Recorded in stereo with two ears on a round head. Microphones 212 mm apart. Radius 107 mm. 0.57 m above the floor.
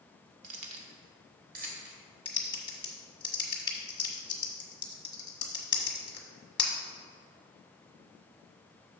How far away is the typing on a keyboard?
About 1.2 m.